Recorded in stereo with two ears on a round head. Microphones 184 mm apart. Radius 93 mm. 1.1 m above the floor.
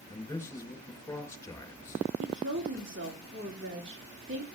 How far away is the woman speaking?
About 2.5 m.